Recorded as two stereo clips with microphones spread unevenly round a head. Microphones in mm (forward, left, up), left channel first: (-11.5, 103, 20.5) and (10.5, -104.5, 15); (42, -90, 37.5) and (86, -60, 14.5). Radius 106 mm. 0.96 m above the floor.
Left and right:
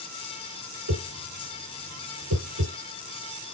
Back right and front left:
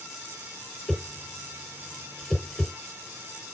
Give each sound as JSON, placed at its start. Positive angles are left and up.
{"t": 0.9, "sound": "a whoosh", "azimuth_deg": -65, "distance_m": 4.0}